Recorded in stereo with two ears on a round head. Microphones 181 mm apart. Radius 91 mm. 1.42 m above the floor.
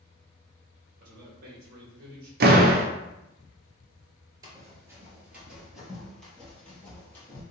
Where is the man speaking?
45° right (ahead or behind), 1.5 m.